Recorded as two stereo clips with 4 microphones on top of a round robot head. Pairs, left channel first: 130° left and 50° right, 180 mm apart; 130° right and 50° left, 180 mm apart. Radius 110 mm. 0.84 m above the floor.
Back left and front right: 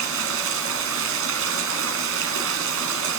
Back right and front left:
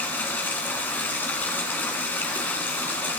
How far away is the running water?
About 1.9 m.